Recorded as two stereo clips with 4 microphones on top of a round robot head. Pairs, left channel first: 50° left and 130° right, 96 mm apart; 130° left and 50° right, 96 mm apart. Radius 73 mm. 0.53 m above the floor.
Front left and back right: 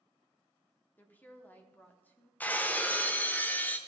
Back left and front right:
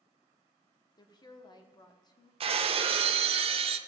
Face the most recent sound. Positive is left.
turn(degrees=-25)